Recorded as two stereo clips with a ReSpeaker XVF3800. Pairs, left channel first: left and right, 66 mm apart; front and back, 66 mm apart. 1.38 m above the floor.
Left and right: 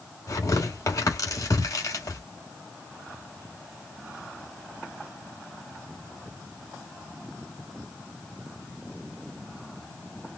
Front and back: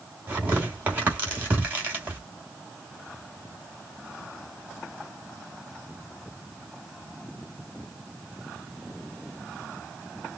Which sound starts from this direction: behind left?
Tearing paper, at 0.3 s.